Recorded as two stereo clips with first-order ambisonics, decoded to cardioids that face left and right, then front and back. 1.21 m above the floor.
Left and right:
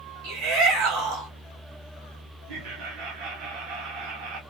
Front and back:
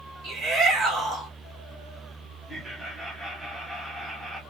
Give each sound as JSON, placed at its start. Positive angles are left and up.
{"t": 0.2, "sound": "a shout", "azimuth_deg": -105, "distance_m": 1.1}
{"t": 2.5, "sound": "laughter", "azimuth_deg": -100, "distance_m": 1.3}